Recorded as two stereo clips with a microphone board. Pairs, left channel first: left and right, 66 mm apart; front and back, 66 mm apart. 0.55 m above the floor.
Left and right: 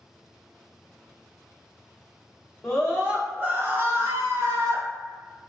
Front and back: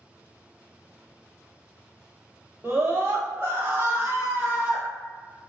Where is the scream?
165° left, 0.7 m; by 4.8 s 110° right, 1.3 m.